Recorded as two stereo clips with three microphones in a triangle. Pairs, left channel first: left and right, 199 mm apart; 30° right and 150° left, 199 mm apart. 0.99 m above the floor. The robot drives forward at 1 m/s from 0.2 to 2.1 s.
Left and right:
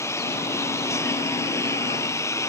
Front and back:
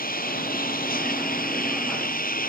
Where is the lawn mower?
15° left.